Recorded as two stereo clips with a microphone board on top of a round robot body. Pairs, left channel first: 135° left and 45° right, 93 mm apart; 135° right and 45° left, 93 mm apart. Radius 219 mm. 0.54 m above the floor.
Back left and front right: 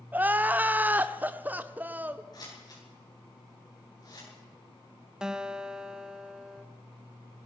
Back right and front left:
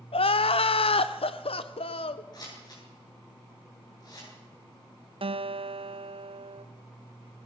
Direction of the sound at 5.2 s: 35° left.